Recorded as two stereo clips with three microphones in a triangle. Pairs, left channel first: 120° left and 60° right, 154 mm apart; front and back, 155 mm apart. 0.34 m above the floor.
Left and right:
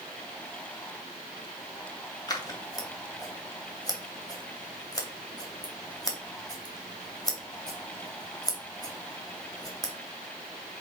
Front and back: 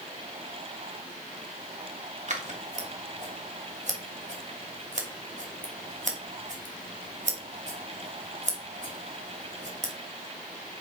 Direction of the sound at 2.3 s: 175° left.